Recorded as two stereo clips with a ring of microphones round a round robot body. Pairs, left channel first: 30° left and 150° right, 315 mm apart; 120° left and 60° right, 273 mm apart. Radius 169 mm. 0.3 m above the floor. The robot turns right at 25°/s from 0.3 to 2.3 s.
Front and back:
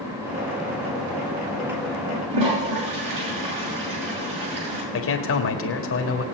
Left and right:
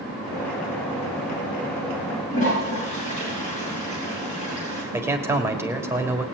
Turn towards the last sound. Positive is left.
turn(degrees=15)